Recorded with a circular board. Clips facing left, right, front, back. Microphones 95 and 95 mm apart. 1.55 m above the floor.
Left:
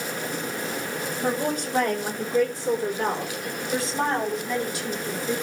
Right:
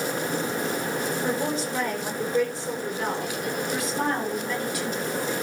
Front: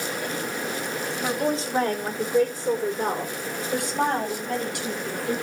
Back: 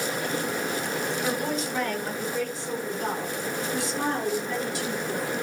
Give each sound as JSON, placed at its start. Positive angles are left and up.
{"t": 1.2, "sound": "a woman speaking", "azimuth_deg": 60, "distance_m": 4.5}